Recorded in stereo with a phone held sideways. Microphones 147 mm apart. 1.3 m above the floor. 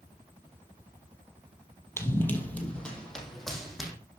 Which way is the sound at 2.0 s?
15° left (ahead or behind).